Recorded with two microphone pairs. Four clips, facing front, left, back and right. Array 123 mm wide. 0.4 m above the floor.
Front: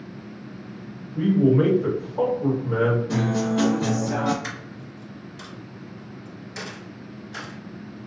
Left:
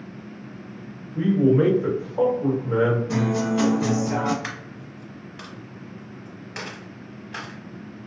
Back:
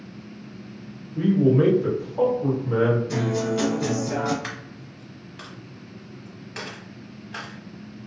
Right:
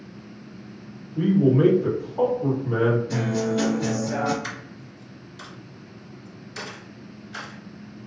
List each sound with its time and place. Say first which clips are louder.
1.1 s a man speaking: left 1 dB, even; 75° left, 1.5 m
3.1 s a guitar: left 1 dB, front 1 dB; 50° left, 1.2 m
4.4 s a dropped coin: left 1 dB, front 1 dB; 130° left, 1.1 m